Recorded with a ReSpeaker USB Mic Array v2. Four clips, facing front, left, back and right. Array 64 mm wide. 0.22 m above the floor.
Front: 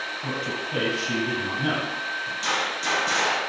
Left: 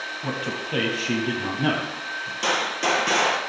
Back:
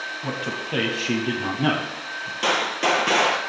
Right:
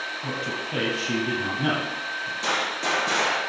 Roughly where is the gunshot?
Behind left.